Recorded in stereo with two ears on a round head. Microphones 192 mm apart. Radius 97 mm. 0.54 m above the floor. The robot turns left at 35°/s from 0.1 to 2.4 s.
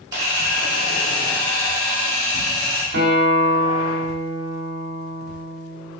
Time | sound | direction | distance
0.1 | a camera shutter | 150° right | 1.3 m
2.9 | a guitar | 50° right (ahead or behind) | 1.3 m